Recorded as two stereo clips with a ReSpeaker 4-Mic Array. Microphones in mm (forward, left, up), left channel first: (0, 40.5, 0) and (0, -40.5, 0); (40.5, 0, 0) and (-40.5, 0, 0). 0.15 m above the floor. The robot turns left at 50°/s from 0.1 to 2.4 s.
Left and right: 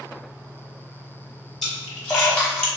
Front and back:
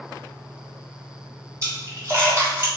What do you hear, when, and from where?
1.6 s a splash: straight behind, 1.8 m; by 2.7 s 140° left, 1.8 m